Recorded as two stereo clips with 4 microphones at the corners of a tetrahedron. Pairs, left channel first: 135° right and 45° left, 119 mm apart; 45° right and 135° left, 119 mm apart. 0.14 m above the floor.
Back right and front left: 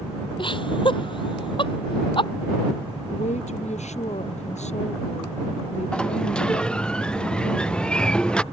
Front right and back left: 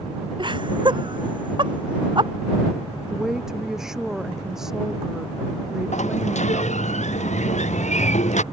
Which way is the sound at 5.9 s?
55° right.